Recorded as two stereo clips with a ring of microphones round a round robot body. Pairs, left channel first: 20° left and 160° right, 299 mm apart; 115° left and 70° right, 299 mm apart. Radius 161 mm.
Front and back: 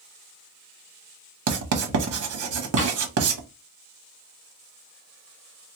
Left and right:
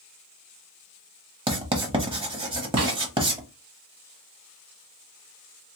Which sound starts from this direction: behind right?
Writing, at 1.5 s.